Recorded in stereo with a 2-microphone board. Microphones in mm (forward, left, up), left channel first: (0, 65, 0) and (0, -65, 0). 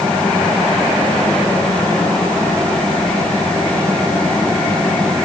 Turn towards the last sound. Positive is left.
No sound to turn to.